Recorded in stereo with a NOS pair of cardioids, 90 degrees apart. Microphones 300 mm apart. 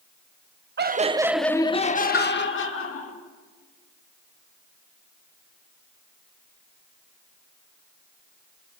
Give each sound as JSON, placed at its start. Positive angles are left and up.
{"t": 0.8, "sound": "laughter", "azimuth_deg": -35, "distance_m": 1.6}
{"t": 2.1, "sound": "a pop", "azimuth_deg": 40, "distance_m": 4.5}